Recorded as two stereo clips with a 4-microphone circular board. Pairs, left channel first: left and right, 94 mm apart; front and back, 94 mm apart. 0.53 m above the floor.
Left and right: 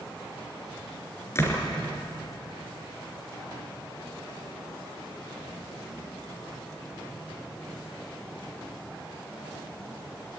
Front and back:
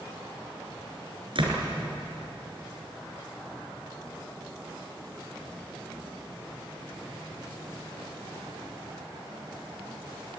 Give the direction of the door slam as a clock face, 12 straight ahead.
7 o'clock.